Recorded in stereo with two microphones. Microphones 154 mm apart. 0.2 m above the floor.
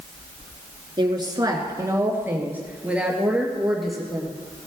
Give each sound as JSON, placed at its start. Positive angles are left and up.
{"t": 1.0, "sound": "a woman speaking", "side_deg": -30, "distance_m": 2.0}